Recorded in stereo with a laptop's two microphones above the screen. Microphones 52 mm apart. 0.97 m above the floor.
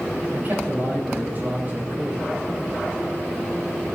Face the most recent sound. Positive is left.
turn(degrees=-35)  # may be behind; listen again after turning